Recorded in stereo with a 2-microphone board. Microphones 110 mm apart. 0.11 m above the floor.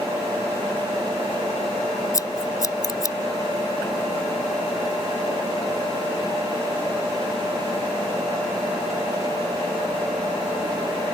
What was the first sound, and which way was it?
Scissors, 30° left (ahead or behind).